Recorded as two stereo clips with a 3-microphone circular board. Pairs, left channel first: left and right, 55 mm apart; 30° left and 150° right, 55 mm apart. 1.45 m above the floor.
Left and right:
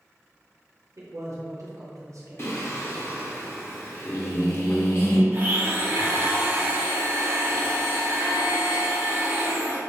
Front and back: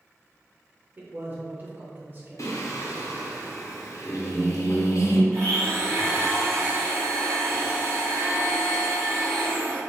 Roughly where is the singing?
Ahead left.